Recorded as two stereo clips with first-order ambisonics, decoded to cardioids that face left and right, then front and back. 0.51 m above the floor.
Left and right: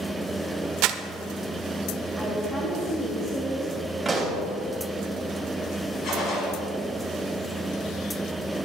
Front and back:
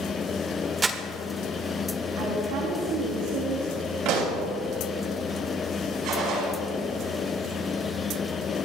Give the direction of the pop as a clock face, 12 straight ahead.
6 o'clock.